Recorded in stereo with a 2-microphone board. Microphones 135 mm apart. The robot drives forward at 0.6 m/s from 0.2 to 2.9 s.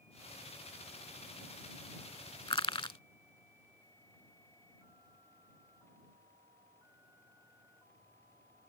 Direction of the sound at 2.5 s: 40° left (ahead or behind).